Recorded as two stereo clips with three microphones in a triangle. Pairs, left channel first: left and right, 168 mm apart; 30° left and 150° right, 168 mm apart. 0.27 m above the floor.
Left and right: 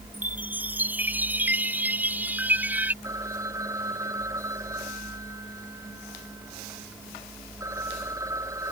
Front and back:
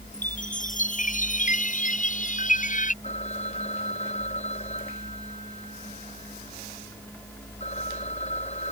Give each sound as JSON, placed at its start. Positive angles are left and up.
{"t": 0.1, "sound": "a chime", "azimuth_deg": -10}
{"t": 3.0, "sound": "a phone ringing", "azimuth_deg": -20}